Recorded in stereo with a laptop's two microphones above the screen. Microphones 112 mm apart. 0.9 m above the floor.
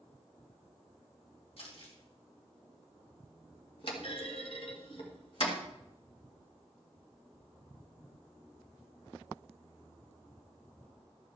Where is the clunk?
55° left (ahead or behind), 1.7 m.